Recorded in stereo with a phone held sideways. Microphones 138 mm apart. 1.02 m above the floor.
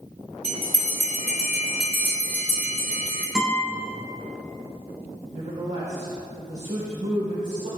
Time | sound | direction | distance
0.4 | a bell | 60° left (ahead or behind) | 3 m
3.4 | a guitar | 5° right (ahead or behind) | 4 m
5.3 | a man speaking | 70° right (ahead or behind) | 3.5 m